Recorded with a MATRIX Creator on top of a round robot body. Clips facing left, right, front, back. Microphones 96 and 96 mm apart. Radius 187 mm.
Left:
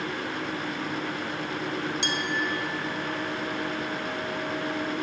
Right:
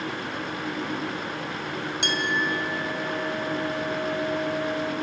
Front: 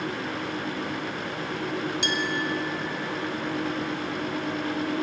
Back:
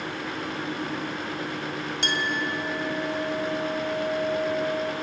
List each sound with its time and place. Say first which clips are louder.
2.0 s a clink: right 2 dB, even; 130° right, 3 m